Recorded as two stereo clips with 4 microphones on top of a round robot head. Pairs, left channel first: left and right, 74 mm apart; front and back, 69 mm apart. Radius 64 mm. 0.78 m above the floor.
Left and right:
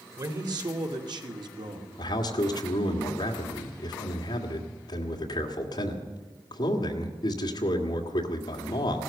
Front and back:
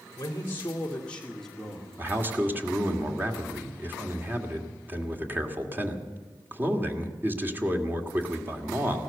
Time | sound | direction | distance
0.2 | a man speaking | 55° right | 2 m
2.0 | a man speaking | 120° left | 2.0 m